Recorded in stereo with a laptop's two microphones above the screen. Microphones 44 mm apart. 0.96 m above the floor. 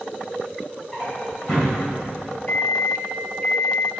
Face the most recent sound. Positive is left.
turn(degrees=45)  # may be behind; listen again after turning